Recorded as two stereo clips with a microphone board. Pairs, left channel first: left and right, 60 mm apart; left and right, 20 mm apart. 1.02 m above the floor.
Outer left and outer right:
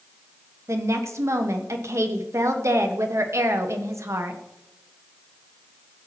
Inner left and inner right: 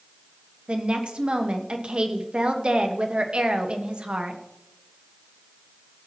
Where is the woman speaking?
60° right (ahead or behind), 1.1 m.